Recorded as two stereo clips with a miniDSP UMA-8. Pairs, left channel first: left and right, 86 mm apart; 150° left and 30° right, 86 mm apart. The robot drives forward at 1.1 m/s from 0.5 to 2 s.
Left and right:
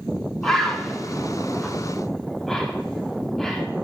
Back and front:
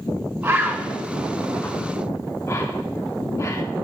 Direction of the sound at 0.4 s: 10° left.